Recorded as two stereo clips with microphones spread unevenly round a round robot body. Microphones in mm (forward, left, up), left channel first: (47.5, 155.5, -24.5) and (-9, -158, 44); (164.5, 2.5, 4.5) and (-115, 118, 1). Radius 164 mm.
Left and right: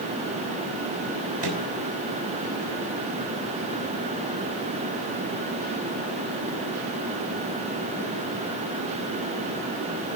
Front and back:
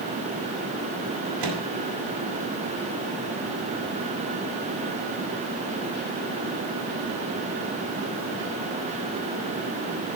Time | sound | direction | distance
1.4 | a microwave | 170° right | 6 m